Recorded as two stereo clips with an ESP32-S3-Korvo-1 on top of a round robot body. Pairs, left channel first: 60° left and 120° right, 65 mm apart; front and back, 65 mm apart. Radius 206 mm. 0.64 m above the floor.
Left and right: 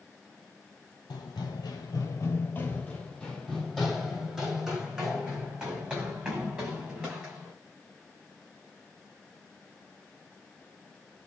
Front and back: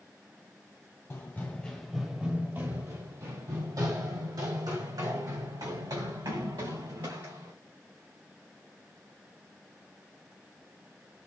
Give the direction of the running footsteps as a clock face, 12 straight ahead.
10 o'clock.